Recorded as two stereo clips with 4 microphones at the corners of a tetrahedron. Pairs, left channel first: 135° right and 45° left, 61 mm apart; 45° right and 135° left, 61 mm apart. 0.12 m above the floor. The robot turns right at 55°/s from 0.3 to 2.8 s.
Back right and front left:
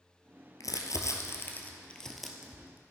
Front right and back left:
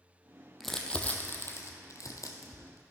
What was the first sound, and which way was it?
Crumpling, 135° right.